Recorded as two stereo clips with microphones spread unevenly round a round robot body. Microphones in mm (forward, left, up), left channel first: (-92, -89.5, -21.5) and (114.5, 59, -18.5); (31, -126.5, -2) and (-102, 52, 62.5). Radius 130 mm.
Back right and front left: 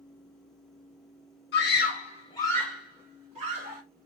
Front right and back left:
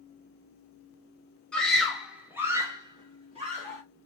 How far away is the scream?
About 1.2 m.